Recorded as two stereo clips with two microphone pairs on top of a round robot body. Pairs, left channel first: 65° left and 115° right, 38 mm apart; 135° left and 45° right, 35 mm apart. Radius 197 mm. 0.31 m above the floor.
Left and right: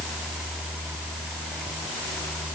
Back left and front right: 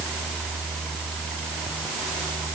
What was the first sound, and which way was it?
Only background noise.